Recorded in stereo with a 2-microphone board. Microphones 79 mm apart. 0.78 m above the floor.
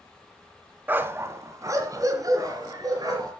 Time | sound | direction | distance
0.9 | a dog barking | 25° right (ahead or behind) | 1.2 m